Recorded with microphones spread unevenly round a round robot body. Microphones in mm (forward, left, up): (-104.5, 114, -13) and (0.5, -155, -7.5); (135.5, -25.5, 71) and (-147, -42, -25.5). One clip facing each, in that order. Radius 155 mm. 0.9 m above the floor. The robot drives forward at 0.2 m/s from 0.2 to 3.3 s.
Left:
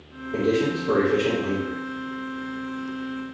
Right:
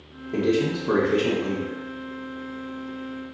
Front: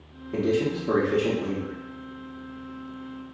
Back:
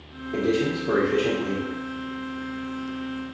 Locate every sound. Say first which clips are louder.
0.3 s a man speaking: even, back 1 dB; 75° right, 1.1 m; by 1.8 s 100° right, 1.1 m